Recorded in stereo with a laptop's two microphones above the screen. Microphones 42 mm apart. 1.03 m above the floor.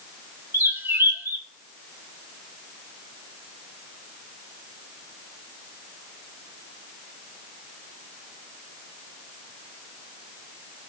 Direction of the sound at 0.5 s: 70° right (ahead or behind).